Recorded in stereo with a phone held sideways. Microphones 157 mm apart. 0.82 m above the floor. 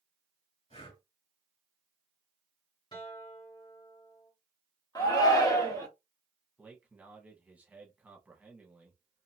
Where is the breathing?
40° left (ahead or behind), 1.2 m.